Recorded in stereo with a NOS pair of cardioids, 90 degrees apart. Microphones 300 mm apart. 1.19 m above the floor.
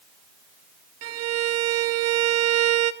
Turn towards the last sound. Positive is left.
turn(degrees=-60)